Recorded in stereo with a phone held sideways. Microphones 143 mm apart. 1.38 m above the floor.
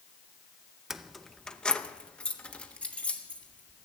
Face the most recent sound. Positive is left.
turn(degrees=10)  # may be behind; listen again after turning